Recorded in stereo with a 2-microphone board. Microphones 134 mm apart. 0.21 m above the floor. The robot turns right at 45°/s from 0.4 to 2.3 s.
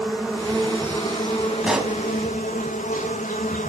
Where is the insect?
5° right, 1.4 m; by 3.7 s 85° left, 1.4 m.